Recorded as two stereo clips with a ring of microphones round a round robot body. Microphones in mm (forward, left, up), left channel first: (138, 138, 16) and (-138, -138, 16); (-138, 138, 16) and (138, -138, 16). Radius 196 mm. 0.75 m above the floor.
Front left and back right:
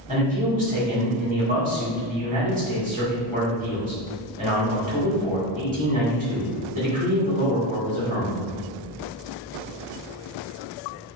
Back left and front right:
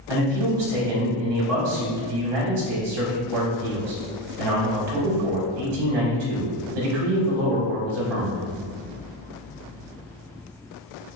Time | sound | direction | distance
0.1 | a man speaking | 65° right | 1.8 m